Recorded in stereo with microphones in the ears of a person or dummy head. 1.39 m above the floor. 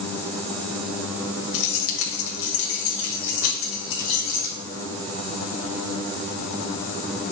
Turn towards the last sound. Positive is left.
turn(degrees=80)